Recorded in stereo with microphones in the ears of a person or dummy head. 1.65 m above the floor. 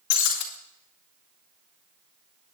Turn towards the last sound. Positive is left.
turn(degrees=55)  # may be behind; listen again after turning